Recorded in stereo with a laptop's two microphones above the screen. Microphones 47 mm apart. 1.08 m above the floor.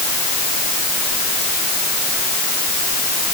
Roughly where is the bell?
I don't hear a bell.